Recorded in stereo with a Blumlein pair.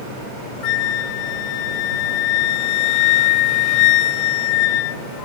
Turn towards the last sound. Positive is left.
turn(degrees=40)